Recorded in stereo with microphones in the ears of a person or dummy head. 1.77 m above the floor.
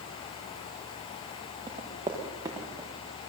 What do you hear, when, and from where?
1.7 s running footsteps: 25° right (ahead or behind), 7 m; by 2.9 s 20° right (ahead or behind), 7 m